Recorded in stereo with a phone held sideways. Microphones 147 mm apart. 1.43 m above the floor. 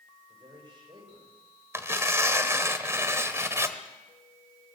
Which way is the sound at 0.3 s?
35° right (ahead or behind).